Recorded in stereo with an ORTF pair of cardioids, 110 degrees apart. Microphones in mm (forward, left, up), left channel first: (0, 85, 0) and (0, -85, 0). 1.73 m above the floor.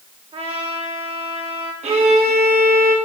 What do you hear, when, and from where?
0.3 s a trumpet: 35° right, 3 m
1.8 s a violin: 40° right, 3 m